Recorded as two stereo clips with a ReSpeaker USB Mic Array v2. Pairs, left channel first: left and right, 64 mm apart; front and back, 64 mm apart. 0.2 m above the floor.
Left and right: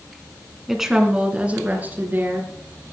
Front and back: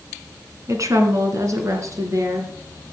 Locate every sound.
0.7 s a woman speaking: straight behind, 2.5 m; by 2.5 s 145° right, 4 m